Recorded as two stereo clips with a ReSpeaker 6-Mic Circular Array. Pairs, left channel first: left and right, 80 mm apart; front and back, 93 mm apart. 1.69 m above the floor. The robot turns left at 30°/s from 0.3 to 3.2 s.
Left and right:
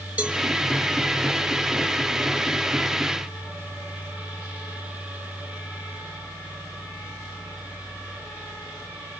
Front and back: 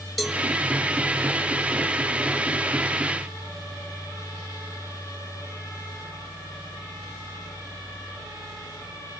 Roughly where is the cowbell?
Right.